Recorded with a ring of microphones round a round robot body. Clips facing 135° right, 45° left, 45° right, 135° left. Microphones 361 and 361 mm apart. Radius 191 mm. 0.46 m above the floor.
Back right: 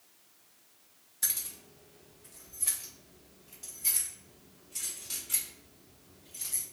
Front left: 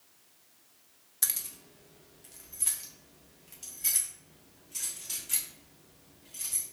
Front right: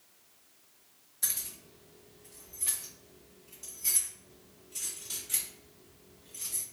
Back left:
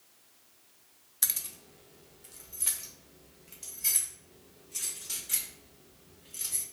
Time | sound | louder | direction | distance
1.2 | keys jangling | even, even | 95° left | 0.7 m